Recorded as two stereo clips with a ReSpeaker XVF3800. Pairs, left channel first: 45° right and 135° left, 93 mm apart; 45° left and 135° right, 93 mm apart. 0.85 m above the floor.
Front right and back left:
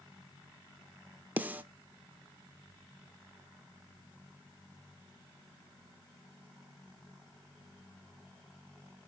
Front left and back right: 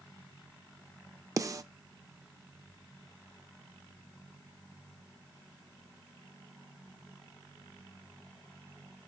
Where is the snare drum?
165° right, 0.5 m.